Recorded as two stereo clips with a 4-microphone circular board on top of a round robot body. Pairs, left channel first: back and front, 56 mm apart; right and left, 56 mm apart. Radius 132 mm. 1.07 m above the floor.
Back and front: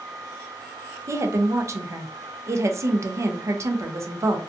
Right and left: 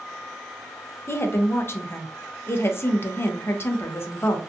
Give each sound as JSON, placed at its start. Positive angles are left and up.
{"t": 1.1, "sound": "a woman speaking", "azimuth_deg": -40, "distance_m": 0.5}